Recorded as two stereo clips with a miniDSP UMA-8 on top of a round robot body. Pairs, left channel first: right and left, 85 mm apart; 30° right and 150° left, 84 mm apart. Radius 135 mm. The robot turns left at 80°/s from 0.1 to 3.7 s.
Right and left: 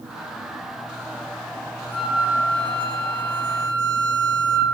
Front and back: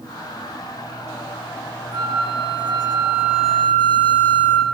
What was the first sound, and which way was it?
A flute, 175° right.